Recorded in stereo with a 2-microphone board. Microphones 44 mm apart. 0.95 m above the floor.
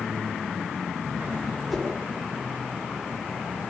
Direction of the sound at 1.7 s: Centre (ahead or behind).